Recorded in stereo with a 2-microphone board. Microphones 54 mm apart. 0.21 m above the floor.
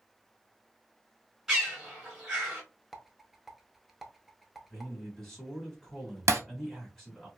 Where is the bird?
5° right (ahead or behind), 1.2 m.